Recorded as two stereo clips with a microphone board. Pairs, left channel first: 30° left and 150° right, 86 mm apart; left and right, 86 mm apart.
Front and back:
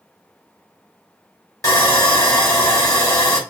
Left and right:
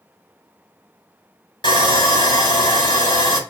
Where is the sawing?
75° left, 2 m.